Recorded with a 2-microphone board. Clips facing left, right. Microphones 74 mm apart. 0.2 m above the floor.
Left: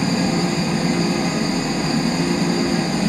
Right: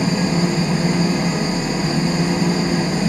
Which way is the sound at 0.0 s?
45° right (ahead or behind).